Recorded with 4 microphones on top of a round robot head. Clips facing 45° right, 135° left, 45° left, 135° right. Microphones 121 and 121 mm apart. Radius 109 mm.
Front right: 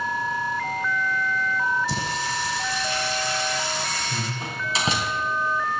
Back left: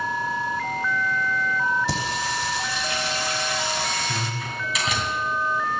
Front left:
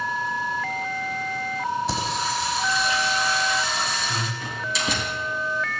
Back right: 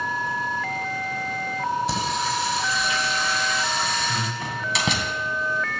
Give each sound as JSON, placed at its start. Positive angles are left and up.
{"t": 1.9, "sound": "singing", "azimuth_deg": 135, "distance_m": 5.5}
{"t": 4.4, "sound": "a door slam", "azimuth_deg": -105, "distance_m": 3.5}